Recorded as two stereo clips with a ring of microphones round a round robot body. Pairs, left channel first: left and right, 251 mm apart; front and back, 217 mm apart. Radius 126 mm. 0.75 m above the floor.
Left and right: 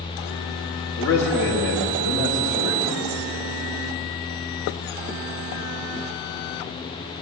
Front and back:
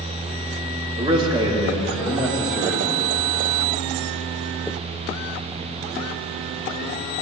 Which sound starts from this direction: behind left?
A man speaking, at 1.0 s.